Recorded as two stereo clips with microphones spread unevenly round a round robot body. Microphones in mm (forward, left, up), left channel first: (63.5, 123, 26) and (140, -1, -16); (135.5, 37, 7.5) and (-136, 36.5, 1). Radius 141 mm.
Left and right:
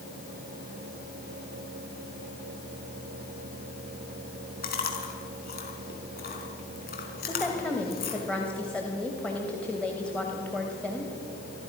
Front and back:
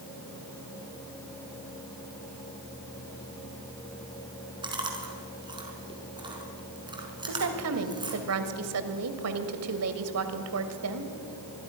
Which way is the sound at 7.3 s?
145° right.